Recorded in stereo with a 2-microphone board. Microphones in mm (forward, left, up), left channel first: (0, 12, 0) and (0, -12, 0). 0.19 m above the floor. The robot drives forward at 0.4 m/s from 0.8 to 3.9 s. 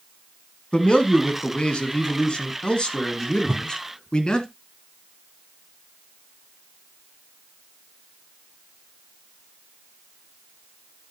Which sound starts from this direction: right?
A whoosh, at 3.5 s.